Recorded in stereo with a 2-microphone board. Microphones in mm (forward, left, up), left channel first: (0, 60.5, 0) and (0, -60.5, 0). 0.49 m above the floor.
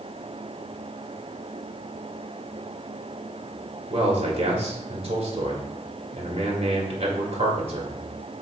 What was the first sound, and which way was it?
A man speaking, 55° right (ahead or behind).